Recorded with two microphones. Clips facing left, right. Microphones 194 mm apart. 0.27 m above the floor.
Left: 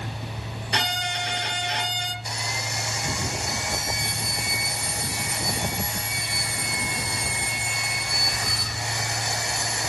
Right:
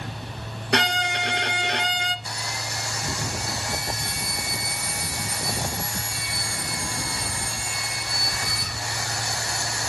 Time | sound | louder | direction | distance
0.7 | a violin | right 6 dB | 65° right (ahead or behind) | 1.5 m
2.2 | sawing | left 1 dB | 20° left (ahead or behind) | 2.5 m